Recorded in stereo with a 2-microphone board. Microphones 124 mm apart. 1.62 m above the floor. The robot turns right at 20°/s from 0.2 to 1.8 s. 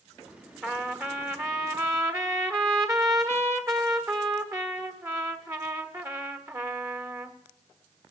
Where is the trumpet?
15° right (ahead or behind), 1.4 m; by 7.3 s 25° right (ahead or behind), 1.4 m.